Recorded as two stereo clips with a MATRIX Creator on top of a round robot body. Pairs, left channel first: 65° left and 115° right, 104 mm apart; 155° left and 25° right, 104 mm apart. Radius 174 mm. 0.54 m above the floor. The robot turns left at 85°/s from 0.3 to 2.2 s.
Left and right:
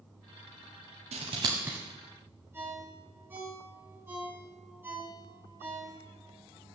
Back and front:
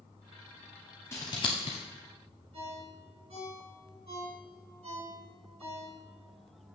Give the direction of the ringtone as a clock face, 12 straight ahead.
1 o'clock.